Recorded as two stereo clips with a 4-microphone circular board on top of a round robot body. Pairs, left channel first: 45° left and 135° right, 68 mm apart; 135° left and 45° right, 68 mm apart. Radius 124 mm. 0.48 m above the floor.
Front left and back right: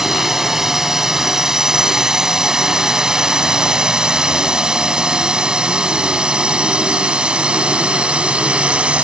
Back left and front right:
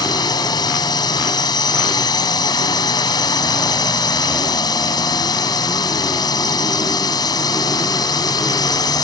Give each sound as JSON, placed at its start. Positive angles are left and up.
{"t": 0.0, "sound": "a drone", "azimuth_deg": 140}